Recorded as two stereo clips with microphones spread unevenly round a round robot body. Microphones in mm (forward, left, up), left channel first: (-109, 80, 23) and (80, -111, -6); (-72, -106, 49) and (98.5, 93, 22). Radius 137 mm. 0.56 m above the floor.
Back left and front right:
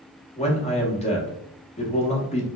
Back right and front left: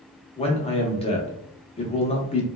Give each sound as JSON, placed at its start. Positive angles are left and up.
{"t": 0.4, "sound": "a man speaking", "azimuth_deg": 180, "distance_m": 0.8}